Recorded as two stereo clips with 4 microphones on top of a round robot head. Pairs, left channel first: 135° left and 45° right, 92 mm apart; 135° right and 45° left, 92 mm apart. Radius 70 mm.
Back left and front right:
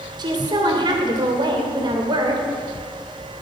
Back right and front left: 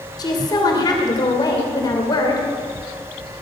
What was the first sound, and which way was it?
A woman speaking, 85° right.